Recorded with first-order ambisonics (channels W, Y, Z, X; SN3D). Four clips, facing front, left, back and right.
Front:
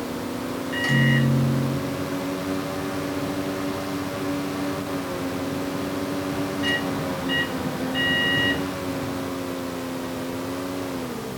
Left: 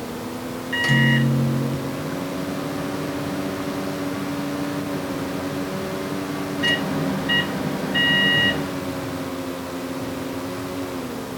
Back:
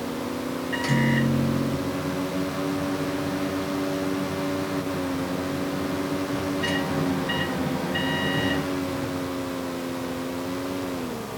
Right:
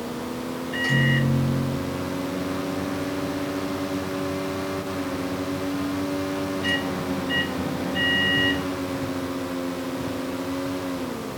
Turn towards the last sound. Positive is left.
turn(degrees=100)